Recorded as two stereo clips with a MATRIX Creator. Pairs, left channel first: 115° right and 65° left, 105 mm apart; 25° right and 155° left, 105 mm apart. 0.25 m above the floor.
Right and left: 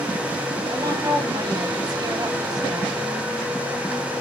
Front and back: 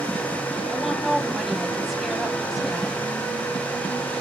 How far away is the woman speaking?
About 1.9 m.